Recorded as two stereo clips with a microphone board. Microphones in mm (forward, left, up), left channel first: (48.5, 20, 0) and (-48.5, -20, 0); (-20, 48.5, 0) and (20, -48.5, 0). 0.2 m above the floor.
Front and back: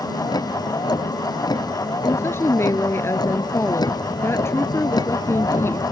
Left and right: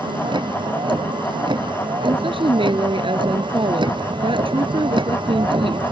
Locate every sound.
0.0 s a vehicle: 25° right
2.0 s a woman speaking: 40° right